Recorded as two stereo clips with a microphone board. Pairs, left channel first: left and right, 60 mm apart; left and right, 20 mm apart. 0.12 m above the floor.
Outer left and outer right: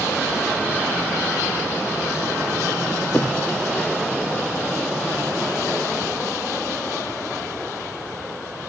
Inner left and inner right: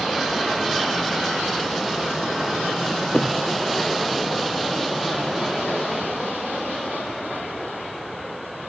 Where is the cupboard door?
25° left (ahead or behind), 5 m.